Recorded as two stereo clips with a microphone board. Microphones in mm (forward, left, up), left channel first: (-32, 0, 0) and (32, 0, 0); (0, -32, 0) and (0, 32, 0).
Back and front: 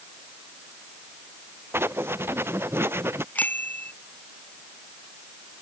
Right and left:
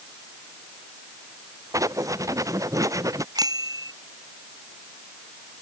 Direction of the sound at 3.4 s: 115° left.